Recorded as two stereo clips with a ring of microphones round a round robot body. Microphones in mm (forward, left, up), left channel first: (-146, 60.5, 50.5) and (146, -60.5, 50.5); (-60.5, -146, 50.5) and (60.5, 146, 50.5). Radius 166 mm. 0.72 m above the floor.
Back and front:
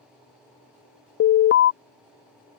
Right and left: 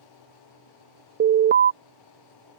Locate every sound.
1.2 s an alarm: 120° left